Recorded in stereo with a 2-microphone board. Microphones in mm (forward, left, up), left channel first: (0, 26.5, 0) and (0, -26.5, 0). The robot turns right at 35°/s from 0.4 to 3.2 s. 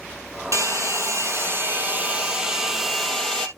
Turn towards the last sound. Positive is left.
turn(degrees=10)